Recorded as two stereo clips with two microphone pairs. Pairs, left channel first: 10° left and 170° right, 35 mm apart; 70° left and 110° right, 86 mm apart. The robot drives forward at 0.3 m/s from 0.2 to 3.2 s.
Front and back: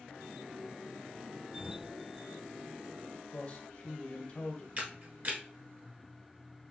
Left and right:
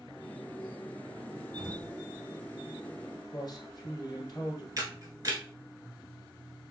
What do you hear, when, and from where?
1.6 s an explosion: 130° right, 2.5 m; by 1.9 s 135° right, 3 m
3.3 s a man speaking: 60° left, 1.6 m
4.8 s a camera shutter: 145° right, 1.0 m